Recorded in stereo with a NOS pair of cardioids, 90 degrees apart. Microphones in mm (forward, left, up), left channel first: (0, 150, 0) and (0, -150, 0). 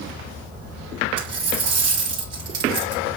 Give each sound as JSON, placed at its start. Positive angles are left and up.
{"t": 1.2, "sound": "a dropped coin", "azimuth_deg": -55, "distance_m": 3.5}